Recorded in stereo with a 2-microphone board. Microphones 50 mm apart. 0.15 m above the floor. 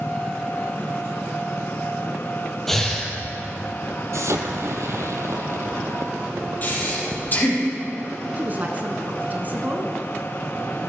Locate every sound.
2.7 s breathing: 5° left (ahead or behind), 2.5 m
4.1 s an explosion: 70° right (ahead or behind), 1.4 m
6.6 s breathing: 40° left (ahead or behind), 4.5 m
8.4 s a woman speaking: 35° right (ahead or behind), 1.4 m